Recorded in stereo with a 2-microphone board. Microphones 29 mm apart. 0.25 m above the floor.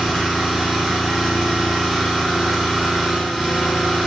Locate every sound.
0.0 s an engine running: 10° left (ahead or behind), 1.4 m